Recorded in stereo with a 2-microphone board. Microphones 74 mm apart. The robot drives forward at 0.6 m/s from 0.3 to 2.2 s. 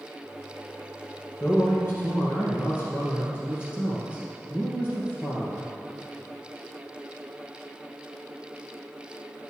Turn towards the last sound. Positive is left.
turn(degrees=30)  # may be behind; listen again after turning